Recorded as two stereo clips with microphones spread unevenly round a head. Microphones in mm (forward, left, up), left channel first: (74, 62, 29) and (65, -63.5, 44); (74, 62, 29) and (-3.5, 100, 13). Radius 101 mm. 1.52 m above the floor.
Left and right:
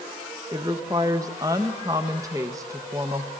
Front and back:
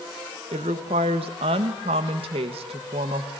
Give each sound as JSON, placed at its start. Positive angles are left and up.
{"t": 0.5, "sound": "a woman speaking", "azimuth_deg": -165, "distance_m": 1.7}